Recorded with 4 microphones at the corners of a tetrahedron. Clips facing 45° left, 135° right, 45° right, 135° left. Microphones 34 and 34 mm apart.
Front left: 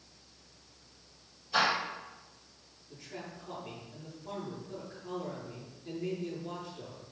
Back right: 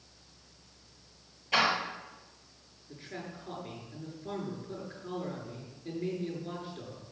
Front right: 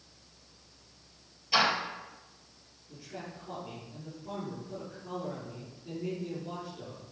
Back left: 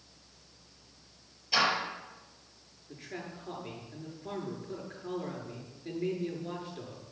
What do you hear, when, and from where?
1.5 s a door slam: 130° right, 6.5 m
2.9 s a man speaking: 165° left, 8 m